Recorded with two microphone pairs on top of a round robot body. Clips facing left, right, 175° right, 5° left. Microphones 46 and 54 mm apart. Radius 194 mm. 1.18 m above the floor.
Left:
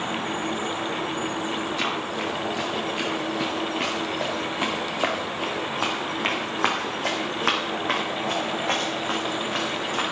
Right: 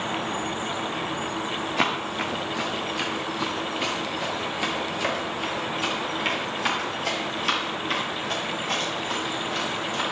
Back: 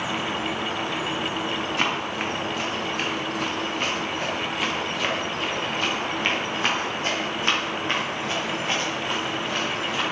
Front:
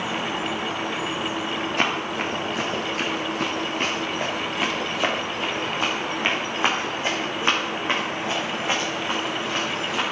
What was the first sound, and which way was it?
Running footsteps, 55° right.